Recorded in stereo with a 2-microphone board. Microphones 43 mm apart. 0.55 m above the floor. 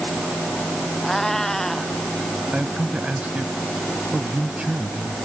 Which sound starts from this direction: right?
A man speaking, at 2.5 s.